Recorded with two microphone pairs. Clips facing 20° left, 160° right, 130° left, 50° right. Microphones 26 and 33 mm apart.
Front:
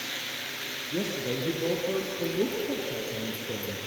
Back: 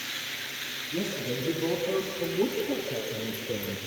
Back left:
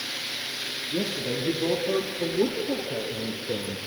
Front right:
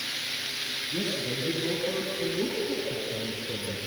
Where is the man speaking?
80° left, 3.5 m; by 3.8 s 125° left, 2.5 m.